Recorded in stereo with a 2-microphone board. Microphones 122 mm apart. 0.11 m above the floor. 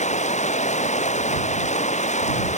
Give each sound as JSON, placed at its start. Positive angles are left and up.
{"t": 0.0, "sound": "running water", "side_deg": 70}